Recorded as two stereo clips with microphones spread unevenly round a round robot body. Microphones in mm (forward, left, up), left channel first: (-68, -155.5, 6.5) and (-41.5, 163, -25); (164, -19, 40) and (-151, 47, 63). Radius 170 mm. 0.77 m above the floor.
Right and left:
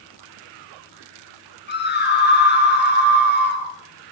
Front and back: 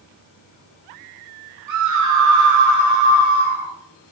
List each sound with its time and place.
1.7 s a scream: 155° right, 10 m